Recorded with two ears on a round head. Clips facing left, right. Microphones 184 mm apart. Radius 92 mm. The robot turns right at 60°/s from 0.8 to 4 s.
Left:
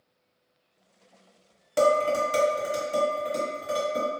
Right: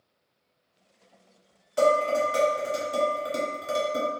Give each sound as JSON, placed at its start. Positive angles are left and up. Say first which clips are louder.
{"t": 1.8, "sound": "dishes clattering", "louder": "even", "side_deg": 70, "distance_m": 1.2}